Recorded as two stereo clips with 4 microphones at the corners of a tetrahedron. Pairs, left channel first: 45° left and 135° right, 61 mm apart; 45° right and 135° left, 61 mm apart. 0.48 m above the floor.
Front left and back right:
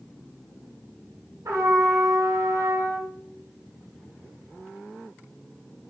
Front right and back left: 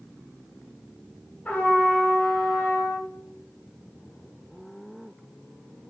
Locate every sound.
1.4 s a trumpet: 105° right, 1.1 m